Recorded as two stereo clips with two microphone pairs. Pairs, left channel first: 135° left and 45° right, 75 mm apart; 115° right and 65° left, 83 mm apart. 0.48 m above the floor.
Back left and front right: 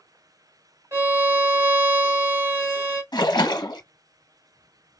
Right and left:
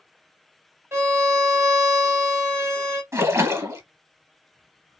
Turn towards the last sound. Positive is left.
turn(degrees=120)